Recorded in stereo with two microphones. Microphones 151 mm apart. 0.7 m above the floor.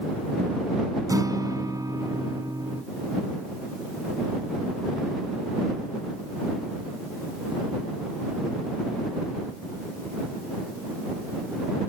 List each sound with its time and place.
1.1 s a guitar: 20° right (ahead or behind)